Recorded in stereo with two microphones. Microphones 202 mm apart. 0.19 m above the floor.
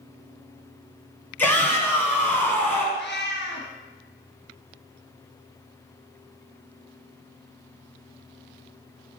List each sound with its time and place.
1.4 s a shout: 10° left (ahead or behind), 1.4 m
3.0 s a cat meowing: 65° left (ahead or behind), 1.6 m